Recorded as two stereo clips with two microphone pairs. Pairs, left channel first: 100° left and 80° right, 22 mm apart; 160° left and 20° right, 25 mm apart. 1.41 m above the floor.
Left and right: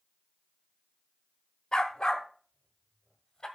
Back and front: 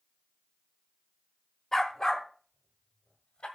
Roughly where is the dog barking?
Behind left.